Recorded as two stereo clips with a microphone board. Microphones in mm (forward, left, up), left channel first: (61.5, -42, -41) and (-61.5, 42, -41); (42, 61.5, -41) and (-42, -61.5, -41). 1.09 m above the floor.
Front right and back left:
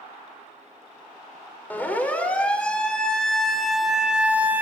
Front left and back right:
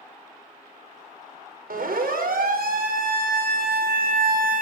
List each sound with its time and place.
1.7 s a siren: 115° right, 4.5 m; by 4.6 s 140° right, 2 m